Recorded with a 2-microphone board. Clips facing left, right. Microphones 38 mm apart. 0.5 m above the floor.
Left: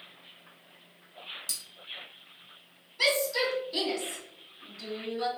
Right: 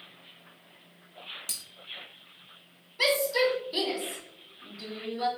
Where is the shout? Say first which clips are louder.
Right 2 dB; 15° right (ahead or behind), 1.1 m.